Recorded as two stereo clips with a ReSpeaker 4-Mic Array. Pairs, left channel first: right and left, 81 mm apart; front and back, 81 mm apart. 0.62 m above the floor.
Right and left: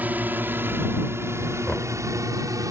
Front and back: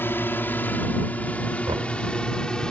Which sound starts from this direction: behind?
Knocking, at 1.7 s.